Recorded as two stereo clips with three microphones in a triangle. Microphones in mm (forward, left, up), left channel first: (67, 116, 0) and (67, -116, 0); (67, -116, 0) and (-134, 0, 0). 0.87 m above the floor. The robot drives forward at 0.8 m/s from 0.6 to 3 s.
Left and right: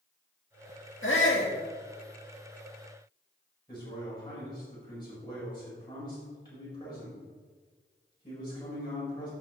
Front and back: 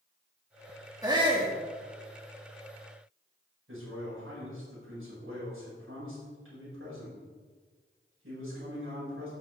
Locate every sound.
1.0 s a shout: 80° left, 1.7 m; by 1.5 s 95° left, 1.7 m
3.7 s a man speaking: 160° left, 5 m